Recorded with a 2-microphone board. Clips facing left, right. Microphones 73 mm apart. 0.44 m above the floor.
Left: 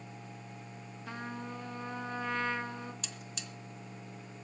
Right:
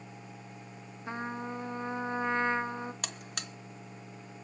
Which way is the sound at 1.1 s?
25° right (ahead or behind).